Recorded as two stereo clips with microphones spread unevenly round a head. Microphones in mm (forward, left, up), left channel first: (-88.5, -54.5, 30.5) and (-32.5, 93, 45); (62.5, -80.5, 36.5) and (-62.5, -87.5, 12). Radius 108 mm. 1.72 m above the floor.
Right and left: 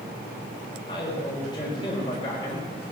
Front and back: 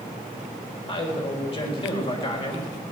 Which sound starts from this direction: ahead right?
A man speaking, at 0.9 s.